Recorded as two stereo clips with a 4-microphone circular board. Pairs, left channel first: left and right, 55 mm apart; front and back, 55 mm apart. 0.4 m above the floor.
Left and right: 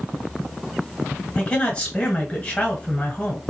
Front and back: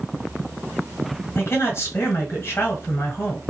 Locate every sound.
1.4 s a man speaking: 25° left, 1.9 m